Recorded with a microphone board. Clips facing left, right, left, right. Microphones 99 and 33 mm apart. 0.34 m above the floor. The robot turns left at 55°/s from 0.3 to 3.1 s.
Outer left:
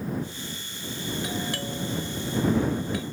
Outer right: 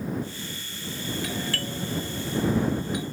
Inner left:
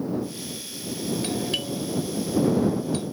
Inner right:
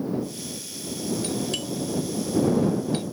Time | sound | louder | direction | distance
1.2 | a doorbell | outer left 1 dB, inner left 1 dB | 25° left (ahead or behind) | ?